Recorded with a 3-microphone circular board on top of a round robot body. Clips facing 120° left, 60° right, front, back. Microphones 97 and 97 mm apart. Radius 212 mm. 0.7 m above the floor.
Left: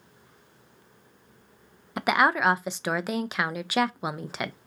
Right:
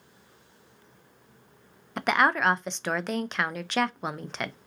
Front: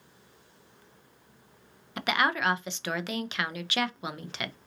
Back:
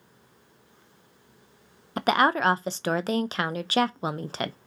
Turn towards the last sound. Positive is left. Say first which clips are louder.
# left 1 dB, back 6 dB
turn(degrees=-160)